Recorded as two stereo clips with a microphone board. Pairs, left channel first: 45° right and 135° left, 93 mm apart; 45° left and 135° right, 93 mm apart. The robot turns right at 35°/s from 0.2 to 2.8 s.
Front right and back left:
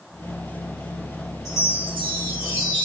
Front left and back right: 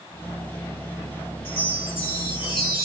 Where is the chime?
45° left, 1.3 m; by 2.9 s 95° left, 1.3 m.